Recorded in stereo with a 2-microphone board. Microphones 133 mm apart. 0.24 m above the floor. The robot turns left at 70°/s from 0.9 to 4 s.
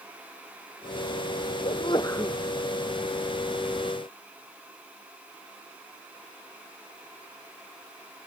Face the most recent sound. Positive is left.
turn(degrees=-110)